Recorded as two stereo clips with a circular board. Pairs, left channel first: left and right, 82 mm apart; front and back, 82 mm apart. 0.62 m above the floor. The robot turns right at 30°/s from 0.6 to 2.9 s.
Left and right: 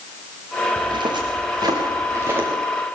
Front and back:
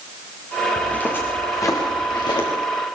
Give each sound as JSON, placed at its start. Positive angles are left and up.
{"t": 0.8, "sound": "footsteps", "azimuth_deg": -80, "distance_m": 9.0}